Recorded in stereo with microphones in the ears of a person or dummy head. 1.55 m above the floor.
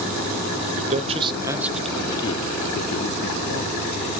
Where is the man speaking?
45° right (ahead or behind), 0.8 m; by 4.1 s 65° left (ahead or behind), 1.4 m.